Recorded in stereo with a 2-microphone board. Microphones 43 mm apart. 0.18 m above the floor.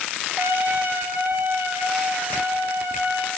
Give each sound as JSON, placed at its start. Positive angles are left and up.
{"t": 0.4, "sound": "a trumpet", "side_deg": -65, "distance_m": 3.0}